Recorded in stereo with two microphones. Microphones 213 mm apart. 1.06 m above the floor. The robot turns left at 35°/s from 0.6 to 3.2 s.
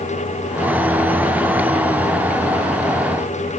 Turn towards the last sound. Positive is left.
No sound to turn to.